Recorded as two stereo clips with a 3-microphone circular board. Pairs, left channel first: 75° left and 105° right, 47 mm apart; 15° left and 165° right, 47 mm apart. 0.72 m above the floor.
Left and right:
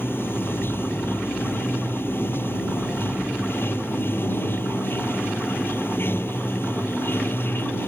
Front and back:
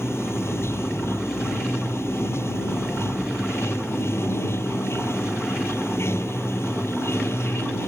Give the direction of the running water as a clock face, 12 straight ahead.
11 o'clock.